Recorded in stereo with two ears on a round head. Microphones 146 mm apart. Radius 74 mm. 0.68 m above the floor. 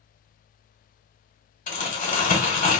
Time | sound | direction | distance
1.7 | crumpling | 50° left (ahead or behind) | 1.3 m